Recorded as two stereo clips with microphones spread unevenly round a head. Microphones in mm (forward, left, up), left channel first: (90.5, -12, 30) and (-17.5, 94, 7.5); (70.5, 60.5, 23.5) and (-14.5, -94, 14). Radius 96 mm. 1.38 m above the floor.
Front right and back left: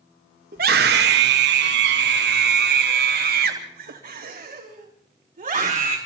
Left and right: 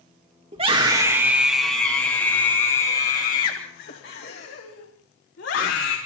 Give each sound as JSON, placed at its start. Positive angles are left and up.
{"t": 0.5, "sound": "a scream", "azimuth_deg": 180, "distance_m": 2.0}